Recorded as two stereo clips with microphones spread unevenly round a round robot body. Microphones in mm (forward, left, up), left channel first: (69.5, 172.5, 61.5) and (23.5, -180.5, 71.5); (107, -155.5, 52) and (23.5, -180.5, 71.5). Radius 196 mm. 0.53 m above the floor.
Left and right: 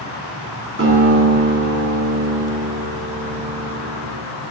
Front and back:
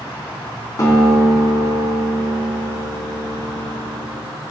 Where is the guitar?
40° right, 3 m.